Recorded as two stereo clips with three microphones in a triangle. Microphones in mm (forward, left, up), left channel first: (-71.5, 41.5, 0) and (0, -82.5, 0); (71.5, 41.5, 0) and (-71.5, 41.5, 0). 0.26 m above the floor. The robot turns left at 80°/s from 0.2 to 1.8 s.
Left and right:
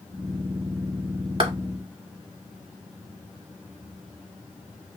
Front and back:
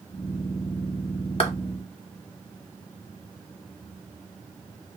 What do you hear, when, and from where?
1.4 s a clap: 25° right, 1.1 m; by 1.5 s 35° right, 1.1 m